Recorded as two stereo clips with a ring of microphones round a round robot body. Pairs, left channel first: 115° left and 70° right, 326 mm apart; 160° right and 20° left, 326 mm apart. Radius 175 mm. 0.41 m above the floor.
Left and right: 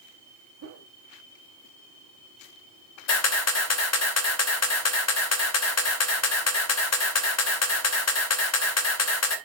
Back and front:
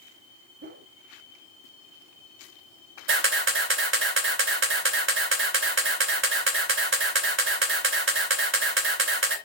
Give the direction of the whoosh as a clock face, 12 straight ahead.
1 o'clock.